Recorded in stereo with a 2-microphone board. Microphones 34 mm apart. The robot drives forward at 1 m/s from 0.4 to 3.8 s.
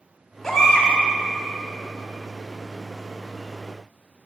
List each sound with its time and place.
0.4 s a baby crying: 5° left (ahead or behind), 2.5 m